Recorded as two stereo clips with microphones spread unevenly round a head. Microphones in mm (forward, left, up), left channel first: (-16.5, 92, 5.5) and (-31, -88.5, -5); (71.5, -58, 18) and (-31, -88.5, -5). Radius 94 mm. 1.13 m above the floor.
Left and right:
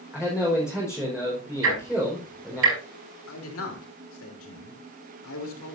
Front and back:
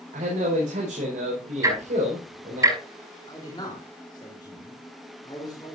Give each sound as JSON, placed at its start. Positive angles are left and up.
{"t": 0.1, "sound": "a man speaking", "azimuth_deg": 180, "distance_m": 4.5}
{"t": 1.6, "sound": "ticking", "azimuth_deg": -105, "distance_m": 8.5}
{"t": 3.3, "sound": "a man speaking", "azimuth_deg": 90, "distance_m": 3.5}